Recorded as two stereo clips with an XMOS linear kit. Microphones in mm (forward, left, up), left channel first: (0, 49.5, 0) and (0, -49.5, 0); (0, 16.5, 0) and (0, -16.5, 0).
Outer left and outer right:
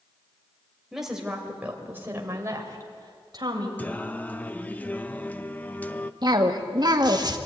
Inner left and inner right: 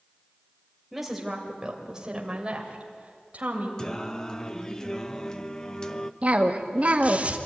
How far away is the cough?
About 1.7 m.